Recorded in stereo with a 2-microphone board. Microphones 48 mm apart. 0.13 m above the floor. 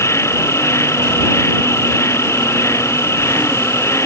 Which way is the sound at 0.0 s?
75° left (ahead or behind).